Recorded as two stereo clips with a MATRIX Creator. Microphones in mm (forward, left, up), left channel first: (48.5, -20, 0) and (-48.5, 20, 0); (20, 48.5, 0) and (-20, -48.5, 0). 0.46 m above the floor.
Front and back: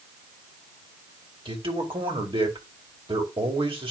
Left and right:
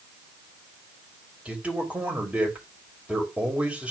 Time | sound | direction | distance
1.4 | a man speaking | 170° left | 2.5 m